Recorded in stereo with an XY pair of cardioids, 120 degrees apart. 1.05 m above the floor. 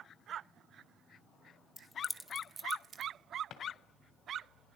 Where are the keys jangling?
35° left, 1.3 m; by 3.1 s 50° right, 1.6 m.